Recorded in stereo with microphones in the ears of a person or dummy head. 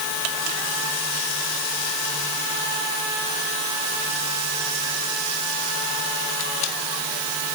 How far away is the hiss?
No hiss in this recording.